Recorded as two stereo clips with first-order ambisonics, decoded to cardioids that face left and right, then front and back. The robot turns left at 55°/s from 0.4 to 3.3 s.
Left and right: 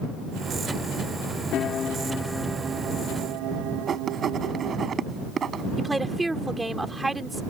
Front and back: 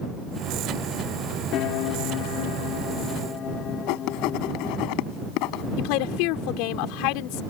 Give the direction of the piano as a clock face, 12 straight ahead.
11 o'clock.